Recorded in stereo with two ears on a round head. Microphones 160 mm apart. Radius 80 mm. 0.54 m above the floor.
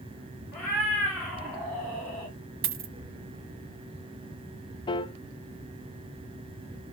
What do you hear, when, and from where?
0.5 s a cat meowing: 5° left (ahead or behind), 7 m; by 2.3 s centre (ahead or behind), 9 m
2.6 s a dropped coin: 50° right (ahead or behind), 1.3 m
4.9 s a piano: 25° left (ahead or behind), 0.5 m